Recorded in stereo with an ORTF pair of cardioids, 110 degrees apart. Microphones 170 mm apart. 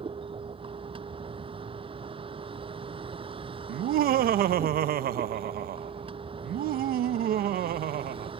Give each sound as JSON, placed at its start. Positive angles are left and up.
{"t": 0.0, "sound": "a vehicle", "azimuth_deg": -30}
{"t": 3.7, "sound": "laughter", "azimuth_deg": -60}